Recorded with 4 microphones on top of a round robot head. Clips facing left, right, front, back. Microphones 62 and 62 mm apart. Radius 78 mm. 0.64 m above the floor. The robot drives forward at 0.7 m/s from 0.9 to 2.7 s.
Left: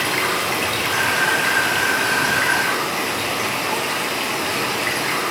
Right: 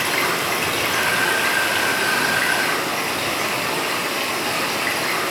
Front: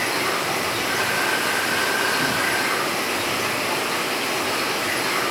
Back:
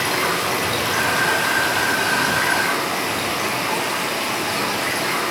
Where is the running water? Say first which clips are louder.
Even, back 2 dB; 175° right, 1.2 m; by 5.3 s straight behind, 2.5 m.